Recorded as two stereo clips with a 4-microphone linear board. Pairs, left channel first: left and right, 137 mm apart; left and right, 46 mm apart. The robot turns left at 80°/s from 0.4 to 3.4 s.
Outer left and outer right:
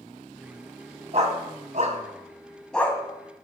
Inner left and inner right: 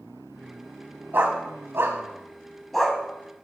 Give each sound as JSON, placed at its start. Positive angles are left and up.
{"t": 1.1, "sound": "a dog barking", "side_deg": -50, "distance_m": 2.5}